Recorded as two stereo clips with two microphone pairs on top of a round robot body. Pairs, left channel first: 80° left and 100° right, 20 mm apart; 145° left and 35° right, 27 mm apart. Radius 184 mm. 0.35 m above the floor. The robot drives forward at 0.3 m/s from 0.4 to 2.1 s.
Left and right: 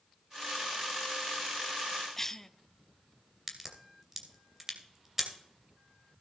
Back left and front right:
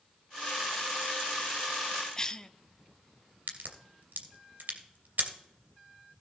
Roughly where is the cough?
Behind left.